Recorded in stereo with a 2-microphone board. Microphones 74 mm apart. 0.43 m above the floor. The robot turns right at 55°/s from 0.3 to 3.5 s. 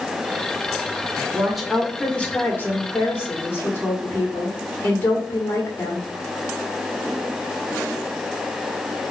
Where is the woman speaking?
20° right, 1.4 m; by 6.1 s 100° left, 1.4 m.